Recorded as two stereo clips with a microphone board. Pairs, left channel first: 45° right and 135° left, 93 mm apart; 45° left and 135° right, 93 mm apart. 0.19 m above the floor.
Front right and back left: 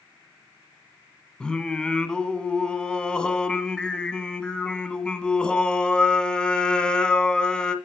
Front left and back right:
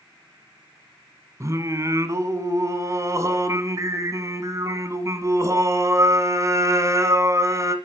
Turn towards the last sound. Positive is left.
turn(degrees=-120)